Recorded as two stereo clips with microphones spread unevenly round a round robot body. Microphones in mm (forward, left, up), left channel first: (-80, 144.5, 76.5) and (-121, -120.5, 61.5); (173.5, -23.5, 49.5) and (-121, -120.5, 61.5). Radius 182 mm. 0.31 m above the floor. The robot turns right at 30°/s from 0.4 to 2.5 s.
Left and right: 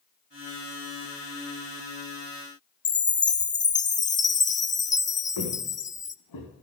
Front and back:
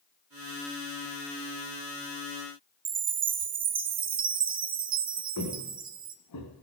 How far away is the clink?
No clink in this recording.